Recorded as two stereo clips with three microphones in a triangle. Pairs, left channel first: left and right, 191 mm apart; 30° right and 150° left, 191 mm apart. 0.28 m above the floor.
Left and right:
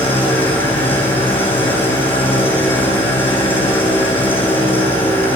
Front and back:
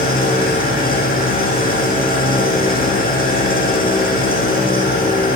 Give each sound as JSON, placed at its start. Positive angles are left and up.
{"t": 0.0, "sound": "an engine running", "azimuth_deg": 10, "distance_m": 7.5}